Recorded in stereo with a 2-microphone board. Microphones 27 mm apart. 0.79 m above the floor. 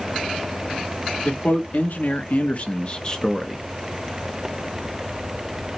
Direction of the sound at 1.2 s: 70° left (ahead or behind).